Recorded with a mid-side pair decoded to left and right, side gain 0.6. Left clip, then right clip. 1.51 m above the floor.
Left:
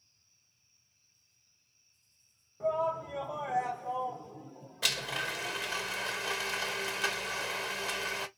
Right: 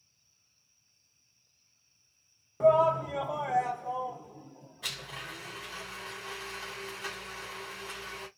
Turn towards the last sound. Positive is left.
turn(degrees=65)